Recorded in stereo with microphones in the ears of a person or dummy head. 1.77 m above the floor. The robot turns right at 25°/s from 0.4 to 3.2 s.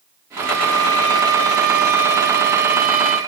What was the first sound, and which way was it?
A violin, 100° right.